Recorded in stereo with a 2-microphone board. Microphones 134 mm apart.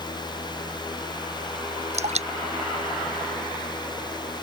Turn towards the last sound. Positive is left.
turn(degrees=-55)  # may be behind; listen again after turning